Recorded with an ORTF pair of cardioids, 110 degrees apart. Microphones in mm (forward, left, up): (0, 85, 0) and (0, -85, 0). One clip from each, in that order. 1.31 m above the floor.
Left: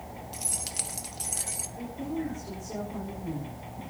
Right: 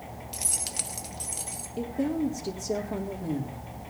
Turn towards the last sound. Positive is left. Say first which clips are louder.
# right 8 dB
turn(degrees=-65)